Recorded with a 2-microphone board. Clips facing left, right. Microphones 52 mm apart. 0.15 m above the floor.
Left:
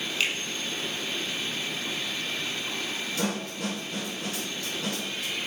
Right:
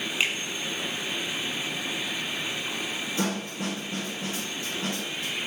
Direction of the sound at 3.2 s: 30° right (ahead or behind).